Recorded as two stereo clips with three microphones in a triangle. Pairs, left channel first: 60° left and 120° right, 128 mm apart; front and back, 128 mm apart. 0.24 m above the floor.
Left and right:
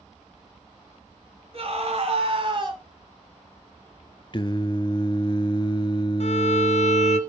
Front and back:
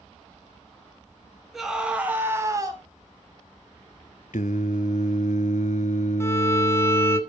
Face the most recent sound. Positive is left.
turn(degrees=65)